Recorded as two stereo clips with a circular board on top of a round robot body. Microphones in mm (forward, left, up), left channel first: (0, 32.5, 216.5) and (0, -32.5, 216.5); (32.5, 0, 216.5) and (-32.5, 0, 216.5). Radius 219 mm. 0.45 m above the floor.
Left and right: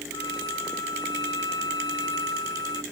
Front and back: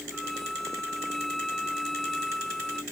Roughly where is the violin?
Left.